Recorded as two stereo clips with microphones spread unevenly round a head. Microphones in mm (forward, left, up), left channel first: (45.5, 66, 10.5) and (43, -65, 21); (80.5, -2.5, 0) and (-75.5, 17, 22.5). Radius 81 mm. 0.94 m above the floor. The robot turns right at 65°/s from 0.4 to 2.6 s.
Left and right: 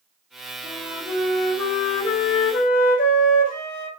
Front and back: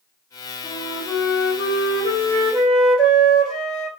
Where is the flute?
45° right, 2.5 m; by 3.9 s 80° left, 2.5 m.